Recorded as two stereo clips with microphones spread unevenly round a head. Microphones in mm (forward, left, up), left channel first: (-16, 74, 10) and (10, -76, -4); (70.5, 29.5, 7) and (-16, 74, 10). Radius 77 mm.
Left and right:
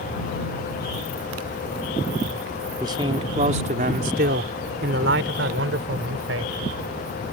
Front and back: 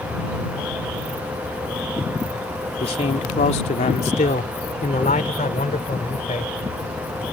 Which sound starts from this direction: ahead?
A man speaking, at 2.8 s.